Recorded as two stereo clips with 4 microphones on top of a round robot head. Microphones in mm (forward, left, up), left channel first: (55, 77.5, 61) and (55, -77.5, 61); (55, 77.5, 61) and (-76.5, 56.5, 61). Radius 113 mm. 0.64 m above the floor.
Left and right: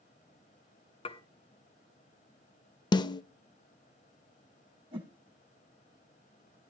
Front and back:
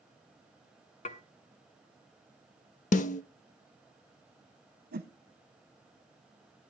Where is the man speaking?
I don't hear a man speaking.